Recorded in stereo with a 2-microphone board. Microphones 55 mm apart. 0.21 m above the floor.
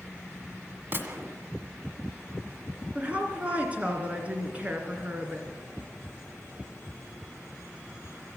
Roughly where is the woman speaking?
Right.